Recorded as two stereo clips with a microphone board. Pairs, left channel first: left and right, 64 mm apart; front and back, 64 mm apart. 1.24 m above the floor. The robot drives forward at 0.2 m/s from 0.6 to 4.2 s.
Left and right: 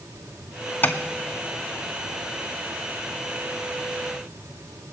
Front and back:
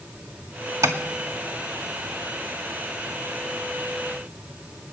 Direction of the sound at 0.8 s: 145° left.